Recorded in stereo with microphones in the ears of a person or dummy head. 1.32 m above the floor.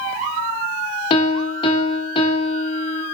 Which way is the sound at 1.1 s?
30° left (ahead or behind).